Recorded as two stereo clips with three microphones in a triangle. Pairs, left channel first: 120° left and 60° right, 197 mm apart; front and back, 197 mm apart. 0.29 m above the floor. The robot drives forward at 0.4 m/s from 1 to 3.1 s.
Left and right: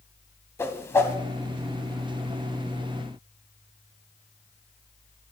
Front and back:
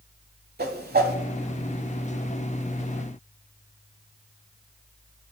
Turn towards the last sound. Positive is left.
turn(degrees=-170)